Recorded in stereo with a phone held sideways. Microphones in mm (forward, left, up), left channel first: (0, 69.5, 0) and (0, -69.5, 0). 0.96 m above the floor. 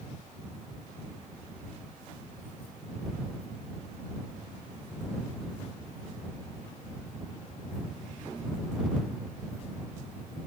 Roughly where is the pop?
No pop in this recording.